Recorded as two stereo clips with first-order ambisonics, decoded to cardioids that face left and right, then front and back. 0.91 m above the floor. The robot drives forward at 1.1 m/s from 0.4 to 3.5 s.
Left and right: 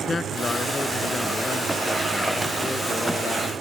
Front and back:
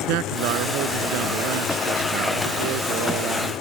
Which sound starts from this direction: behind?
A man speaking, at 0.1 s.